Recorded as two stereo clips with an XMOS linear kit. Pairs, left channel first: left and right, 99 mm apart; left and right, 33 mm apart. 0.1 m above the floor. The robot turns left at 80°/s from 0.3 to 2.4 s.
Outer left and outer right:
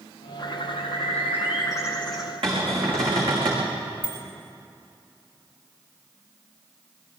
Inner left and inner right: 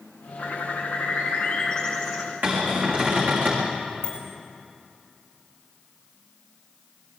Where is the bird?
140° left, 3 m; by 2.3 s 15° right, 3 m.